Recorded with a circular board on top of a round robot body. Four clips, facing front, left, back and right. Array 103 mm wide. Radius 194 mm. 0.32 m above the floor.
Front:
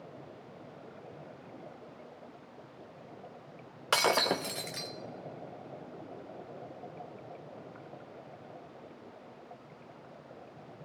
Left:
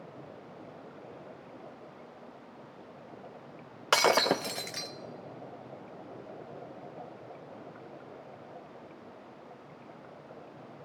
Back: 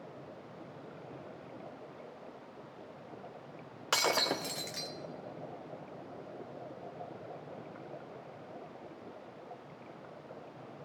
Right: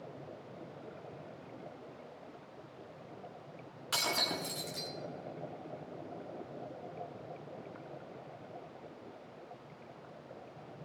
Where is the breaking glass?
75° left, 0.7 m.